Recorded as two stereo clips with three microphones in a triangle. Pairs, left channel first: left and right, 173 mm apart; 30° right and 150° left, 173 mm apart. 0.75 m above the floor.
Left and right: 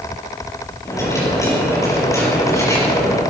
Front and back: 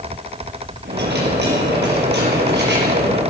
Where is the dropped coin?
165° left, 5 m.